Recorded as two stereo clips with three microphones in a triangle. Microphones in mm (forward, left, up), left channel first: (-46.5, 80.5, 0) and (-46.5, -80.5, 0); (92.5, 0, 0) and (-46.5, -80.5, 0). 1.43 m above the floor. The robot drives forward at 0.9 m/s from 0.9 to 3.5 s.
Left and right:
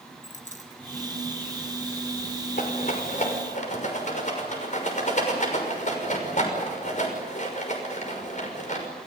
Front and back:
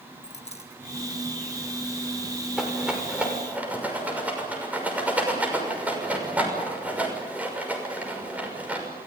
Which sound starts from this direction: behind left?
A rattle, at 2.6 s.